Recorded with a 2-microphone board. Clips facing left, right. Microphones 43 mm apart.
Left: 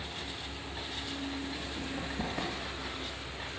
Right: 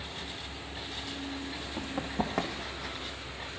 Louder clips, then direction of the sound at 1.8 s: Right 6 dB; 50° right (ahead or behind).